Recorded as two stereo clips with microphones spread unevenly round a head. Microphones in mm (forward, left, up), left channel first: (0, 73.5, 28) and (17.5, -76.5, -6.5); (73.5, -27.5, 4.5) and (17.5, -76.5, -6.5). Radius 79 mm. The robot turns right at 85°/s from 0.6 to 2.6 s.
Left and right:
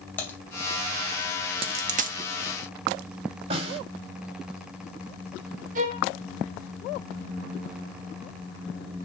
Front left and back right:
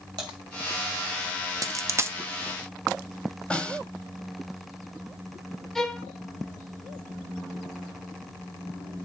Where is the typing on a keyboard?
170° left, 2 m.